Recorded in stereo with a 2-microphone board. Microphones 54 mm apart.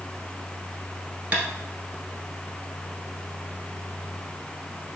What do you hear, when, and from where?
1.3 s tapping: 20° right (ahead or behind), 1.0 m